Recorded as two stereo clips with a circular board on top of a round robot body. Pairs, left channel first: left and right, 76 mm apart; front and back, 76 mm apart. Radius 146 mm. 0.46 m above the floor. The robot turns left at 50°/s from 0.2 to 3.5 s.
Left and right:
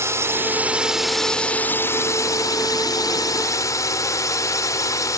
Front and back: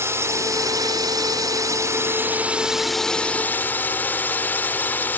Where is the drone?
135° right; by 5.2 s 60° left.